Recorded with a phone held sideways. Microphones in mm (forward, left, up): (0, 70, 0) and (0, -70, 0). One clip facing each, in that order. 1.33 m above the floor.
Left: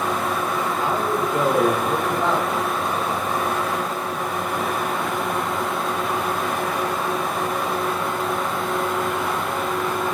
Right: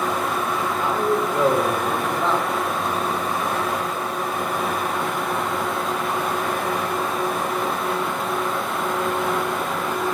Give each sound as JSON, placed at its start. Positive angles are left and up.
{"t": 0.8, "sound": "a man speaking", "side_deg": 20, "distance_m": 3.5}